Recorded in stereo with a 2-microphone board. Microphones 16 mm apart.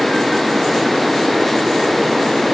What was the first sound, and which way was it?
Only background noise.